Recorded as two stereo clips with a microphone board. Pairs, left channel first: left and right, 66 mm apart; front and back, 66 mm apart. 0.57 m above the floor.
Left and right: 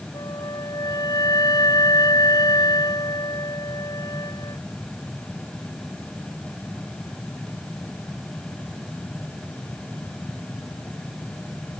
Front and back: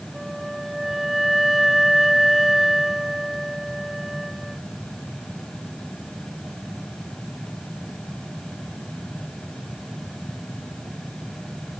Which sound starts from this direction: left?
A flute, at 0.1 s.